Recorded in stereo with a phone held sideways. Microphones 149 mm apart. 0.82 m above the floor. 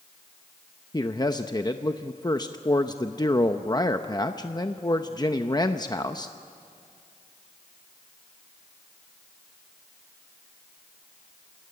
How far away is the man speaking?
About 0.7 m.